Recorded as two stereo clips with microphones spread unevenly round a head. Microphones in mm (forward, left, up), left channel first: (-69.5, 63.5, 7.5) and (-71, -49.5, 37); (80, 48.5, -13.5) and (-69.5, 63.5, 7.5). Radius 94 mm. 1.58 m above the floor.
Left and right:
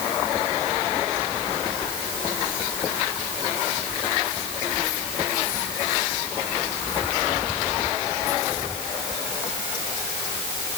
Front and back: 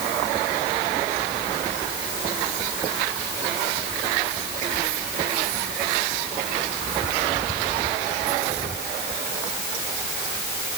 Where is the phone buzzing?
I don't hear a phone buzzing.